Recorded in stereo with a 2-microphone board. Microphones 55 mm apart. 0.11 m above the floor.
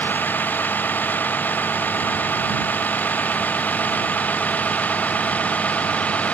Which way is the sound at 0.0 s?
35° left (ahead or behind).